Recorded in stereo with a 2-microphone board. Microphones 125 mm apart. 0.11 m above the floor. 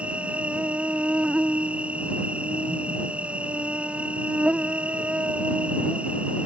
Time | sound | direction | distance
0.0 | an insect | 10° right (ahead or behind) | ?